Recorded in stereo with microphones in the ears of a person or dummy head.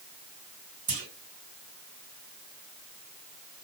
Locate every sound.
0.9 s a clunk: 45° right (ahead or behind), 1.9 m